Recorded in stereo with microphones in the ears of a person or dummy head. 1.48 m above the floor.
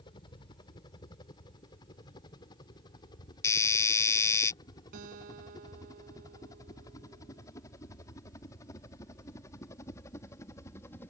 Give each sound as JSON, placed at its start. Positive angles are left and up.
{"t": 0.0, "sound": "a helicopter", "side_deg": 25}
{"t": 3.4, "sound": "a doorbell", "side_deg": 15}
{"t": 4.9, "sound": "a guitar", "side_deg": -55}